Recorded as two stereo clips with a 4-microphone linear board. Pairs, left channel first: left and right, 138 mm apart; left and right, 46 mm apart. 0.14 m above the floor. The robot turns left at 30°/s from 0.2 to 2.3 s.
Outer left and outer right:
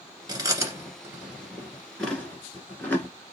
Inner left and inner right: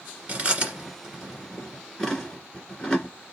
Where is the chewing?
30° right (ahead or behind), 1.9 m; by 3.1 s 10° left (ahead or behind), 1.9 m.